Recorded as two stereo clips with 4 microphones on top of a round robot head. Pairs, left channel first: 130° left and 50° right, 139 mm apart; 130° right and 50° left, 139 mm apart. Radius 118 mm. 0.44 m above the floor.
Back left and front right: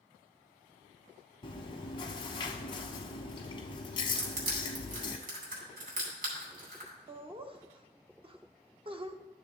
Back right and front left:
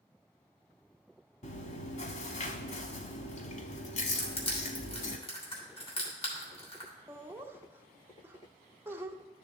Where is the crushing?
80° right, 3 m.